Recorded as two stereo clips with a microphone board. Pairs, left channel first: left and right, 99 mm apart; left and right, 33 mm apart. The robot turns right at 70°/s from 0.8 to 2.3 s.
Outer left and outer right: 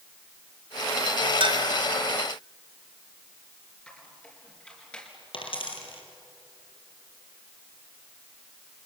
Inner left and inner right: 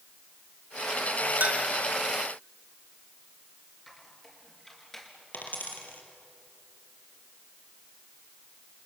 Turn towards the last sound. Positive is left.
turn(degrees=70)  # may be behind; listen again after turning